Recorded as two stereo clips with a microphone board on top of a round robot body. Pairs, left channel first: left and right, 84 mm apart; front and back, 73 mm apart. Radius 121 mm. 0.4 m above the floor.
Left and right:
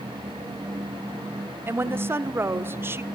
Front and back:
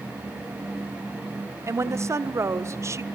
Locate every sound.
1.7 s a woman speaking: 145° right, 1.2 m